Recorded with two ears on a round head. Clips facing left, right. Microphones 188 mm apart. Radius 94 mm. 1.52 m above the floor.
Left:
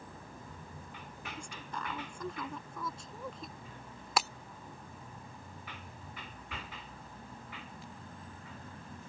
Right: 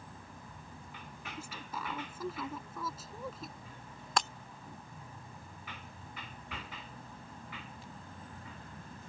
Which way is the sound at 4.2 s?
5° left (ahead or behind).